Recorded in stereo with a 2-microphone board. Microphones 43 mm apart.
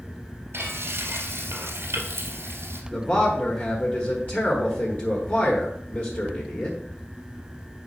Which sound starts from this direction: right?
Frying, at 0.5 s.